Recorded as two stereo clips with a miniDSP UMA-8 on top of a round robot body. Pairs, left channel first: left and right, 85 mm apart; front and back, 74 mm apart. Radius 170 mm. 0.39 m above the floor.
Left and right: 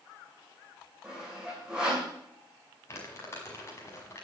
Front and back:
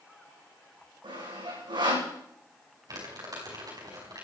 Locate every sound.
1.0 s sawing: 170° right, 9.5 m
2.9 s crumpling: 145° left, 5.5 m